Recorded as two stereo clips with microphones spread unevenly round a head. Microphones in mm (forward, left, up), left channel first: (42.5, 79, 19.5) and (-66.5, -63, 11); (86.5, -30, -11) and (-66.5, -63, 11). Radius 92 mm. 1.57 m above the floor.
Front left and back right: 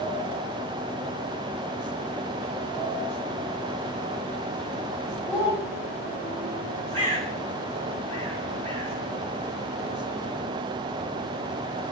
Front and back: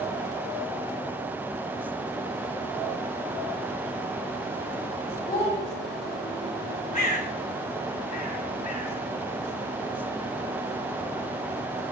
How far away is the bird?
About 6.5 m.